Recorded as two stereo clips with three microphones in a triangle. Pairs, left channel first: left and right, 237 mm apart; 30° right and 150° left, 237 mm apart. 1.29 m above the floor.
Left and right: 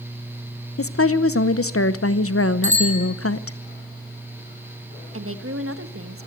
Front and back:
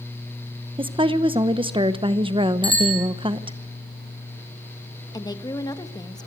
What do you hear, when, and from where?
0.8 s a woman speaking: 85° left, 0.9 m
2.6 s a bicycle bell: 150° left, 6.5 m
5.1 s a woman speaking: 105° right, 1.6 m